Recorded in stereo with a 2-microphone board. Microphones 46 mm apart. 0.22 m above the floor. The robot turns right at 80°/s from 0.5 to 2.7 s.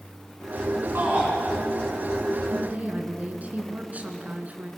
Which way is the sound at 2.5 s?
45° right (ahead or behind).